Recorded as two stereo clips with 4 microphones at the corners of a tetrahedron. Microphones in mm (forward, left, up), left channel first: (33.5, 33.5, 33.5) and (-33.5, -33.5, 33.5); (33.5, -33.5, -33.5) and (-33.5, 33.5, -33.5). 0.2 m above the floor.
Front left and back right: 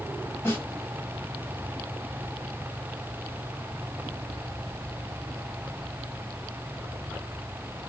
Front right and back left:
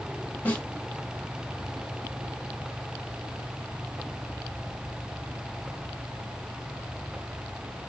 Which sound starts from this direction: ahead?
A snare drum, at 0.5 s.